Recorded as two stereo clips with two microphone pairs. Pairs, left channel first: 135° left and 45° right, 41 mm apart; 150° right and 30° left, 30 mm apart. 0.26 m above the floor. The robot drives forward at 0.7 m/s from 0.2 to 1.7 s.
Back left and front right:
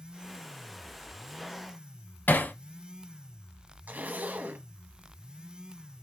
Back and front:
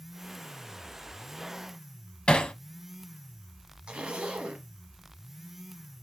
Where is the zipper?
15° right, 1.0 m.